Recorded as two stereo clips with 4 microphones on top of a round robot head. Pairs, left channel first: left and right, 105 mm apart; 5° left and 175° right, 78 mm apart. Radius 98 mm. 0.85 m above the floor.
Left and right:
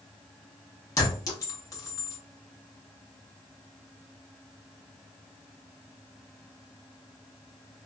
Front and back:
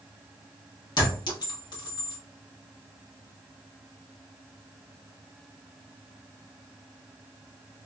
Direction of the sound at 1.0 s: 35° left.